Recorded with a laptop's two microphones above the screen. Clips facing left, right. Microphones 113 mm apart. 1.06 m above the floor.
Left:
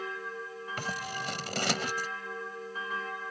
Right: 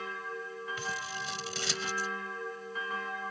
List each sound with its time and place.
0.8 s scissors: 60° left (ahead or behind)